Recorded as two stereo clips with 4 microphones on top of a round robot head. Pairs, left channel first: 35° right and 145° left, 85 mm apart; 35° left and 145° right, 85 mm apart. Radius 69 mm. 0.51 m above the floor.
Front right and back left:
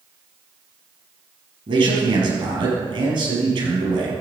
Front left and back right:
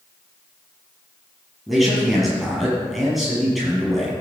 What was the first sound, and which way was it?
A man speaking, 125° left.